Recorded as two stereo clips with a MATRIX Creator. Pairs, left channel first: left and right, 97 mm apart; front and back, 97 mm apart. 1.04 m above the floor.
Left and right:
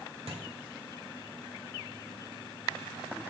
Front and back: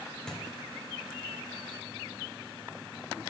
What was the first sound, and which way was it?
A thud, 85° right.